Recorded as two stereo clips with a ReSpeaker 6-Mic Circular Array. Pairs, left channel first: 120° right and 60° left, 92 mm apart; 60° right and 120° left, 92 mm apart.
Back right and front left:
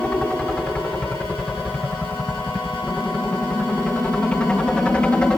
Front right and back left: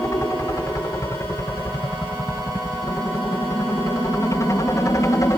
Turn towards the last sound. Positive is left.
turn(degrees=-50)